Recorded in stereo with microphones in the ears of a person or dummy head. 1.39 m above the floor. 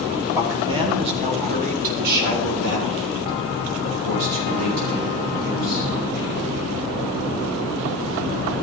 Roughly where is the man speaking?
Centre.